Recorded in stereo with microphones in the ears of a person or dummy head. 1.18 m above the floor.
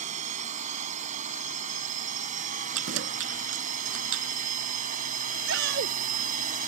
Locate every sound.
0.0 s a drone: 45° right (ahead or behind); by 6.7 s 50° right (ahead or behind)
2.7 s keys jangling: 80° right
5.5 s a shout: 70° right (ahead or behind)